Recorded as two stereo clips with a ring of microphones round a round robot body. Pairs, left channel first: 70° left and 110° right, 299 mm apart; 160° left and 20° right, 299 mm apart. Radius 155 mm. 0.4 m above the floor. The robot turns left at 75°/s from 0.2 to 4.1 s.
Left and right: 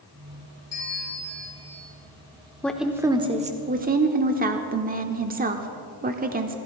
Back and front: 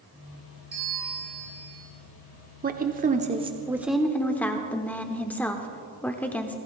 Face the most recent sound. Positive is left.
turn(degrees=-125)